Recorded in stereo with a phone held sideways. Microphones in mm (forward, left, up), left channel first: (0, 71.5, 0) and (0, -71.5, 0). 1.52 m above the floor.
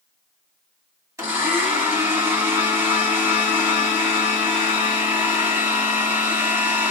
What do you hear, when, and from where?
1.2 s a blender: 20° right (ahead or behind), 2 m